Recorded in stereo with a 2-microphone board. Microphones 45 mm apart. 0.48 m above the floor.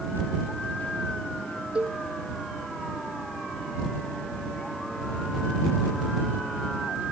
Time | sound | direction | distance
1.8 | a cowbell | 30° right (ahead or behind) | ?